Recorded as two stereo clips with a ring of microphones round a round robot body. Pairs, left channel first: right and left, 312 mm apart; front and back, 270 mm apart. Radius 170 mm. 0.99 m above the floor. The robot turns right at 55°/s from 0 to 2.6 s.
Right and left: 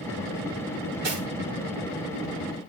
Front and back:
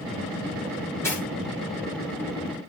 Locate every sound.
1.0 s cutlery clinking: 80° left, 10 m; by 1.2 s 90° left, 10 m